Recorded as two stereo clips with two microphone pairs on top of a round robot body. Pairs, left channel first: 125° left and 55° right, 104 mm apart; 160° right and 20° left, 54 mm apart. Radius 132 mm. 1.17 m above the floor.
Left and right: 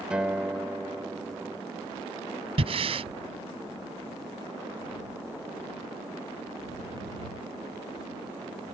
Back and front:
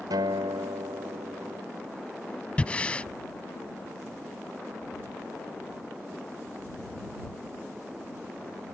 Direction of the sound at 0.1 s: 25° left.